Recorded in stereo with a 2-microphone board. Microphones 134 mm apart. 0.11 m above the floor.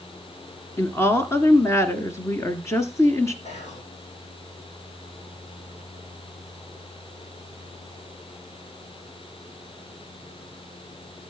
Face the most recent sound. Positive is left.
turn(degrees=55)  # may be behind; listen again after turning